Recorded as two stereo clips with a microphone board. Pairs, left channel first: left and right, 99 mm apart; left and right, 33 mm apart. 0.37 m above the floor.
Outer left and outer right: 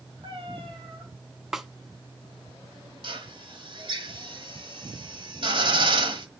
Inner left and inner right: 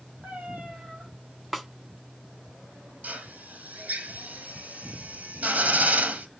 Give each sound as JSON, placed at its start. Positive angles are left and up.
{"t": 0.2, "sound": "a cat meowing", "side_deg": -60, "distance_m": 3.0}
{"t": 1.5, "sound": "a snare drum", "side_deg": -5, "distance_m": 1.0}
{"t": 3.0, "sound": "a drill", "side_deg": -55, "distance_m": 1.5}